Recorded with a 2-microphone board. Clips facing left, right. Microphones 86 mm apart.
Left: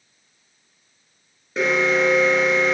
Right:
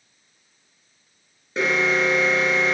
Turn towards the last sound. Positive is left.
turn(degrees=-5)  # may be behind; listen again after turning